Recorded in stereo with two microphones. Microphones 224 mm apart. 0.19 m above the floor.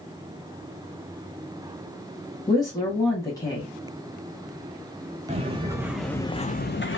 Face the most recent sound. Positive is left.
turn(degrees=60)  # may be behind; listen again after turning